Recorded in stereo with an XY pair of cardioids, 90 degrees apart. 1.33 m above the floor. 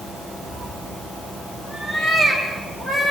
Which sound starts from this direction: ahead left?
A cat meowing, at 0.5 s.